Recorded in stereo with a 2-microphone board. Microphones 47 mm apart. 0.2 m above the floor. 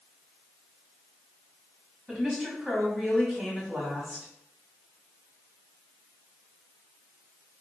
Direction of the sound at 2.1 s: 20° right (ahead or behind).